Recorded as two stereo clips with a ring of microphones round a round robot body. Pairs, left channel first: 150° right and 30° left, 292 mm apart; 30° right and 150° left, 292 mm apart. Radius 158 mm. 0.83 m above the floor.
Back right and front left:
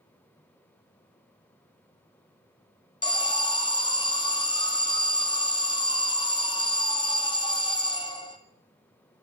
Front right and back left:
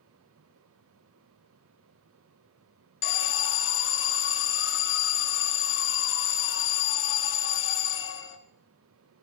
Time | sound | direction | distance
3.0 | an alarm | 75° right | 1.7 m